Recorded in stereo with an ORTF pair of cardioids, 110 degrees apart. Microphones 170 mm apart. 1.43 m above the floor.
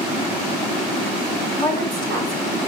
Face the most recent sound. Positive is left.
turn(degrees=-60)